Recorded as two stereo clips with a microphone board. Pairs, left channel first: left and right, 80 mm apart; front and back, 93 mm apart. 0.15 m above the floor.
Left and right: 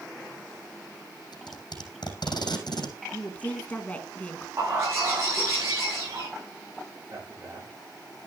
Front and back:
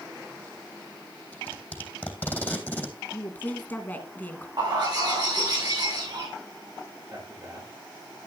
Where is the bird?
140° right, 7.5 m.